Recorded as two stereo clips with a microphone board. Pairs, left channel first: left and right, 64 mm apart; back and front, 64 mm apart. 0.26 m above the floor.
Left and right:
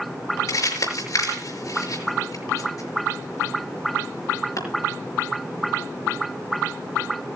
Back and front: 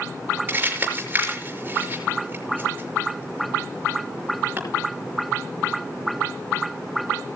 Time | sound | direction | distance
0.5 | crumpling | 60° left | 5.5 m